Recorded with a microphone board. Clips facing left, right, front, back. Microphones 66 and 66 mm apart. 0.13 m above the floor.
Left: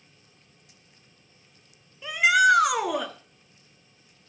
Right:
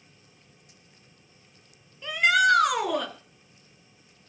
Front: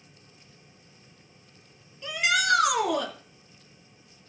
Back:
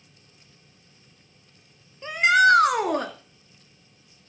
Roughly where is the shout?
Behind.